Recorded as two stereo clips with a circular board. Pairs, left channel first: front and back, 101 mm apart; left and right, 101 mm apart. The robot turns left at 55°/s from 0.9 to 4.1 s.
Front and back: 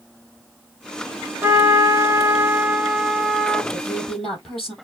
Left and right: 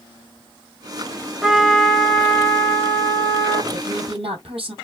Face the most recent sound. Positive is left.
turn(degrees=-85)